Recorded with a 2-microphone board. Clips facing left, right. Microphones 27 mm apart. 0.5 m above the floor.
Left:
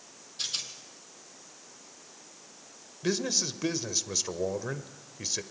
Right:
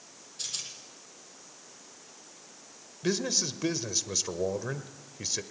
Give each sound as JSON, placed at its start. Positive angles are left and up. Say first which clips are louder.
{"t": 0.4, "sound": "a rattle", "louder": "left 4 dB", "side_deg": 30, "distance_m": 3.0}
{"t": 3.0, "sound": "a man speaking", "louder": "even", "side_deg": 0, "distance_m": 1.5}